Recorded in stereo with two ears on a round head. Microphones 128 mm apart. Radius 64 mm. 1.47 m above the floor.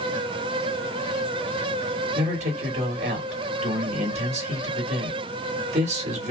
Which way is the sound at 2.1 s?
50° right (ahead or behind).